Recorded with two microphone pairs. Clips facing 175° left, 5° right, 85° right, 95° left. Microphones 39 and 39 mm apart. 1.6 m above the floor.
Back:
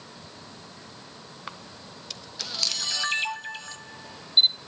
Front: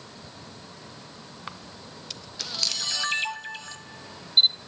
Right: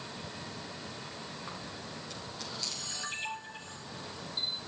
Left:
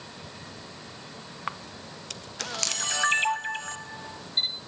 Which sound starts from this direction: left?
A camera shutter, at 1.5 s.